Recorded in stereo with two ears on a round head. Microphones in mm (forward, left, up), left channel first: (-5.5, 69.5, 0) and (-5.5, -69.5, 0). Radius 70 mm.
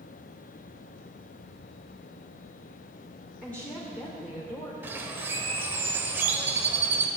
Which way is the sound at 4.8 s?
15° right (ahead or behind).